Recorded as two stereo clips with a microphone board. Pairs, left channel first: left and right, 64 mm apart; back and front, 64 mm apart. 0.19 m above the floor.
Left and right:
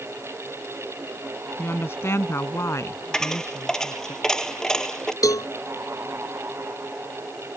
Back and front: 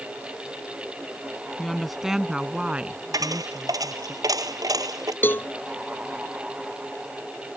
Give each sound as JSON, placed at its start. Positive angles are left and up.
{"t": 1.6, "sound": "a woman speaking", "azimuth_deg": 95}
{"t": 3.1, "sound": "a dropped coin", "azimuth_deg": 10}
{"t": 5.2, "sound": "a cowbell", "azimuth_deg": 120}